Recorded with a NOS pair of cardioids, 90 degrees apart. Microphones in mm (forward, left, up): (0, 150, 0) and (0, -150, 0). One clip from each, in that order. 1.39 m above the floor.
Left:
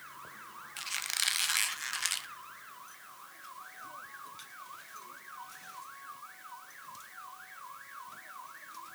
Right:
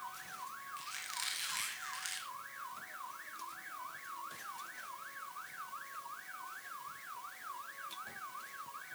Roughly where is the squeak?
Left.